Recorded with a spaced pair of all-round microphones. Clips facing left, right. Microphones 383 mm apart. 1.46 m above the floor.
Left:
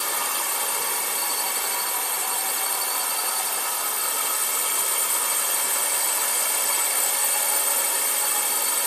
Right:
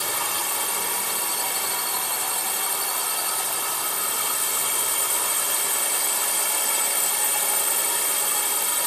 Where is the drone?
60° right (ahead or behind).